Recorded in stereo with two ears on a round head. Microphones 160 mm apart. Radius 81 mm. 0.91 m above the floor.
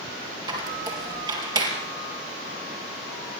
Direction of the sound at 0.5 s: 25° right (ahead or behind).